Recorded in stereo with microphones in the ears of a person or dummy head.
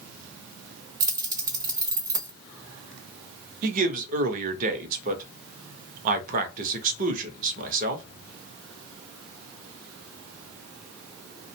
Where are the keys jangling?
20° right (ahead or behind), 0.9 m.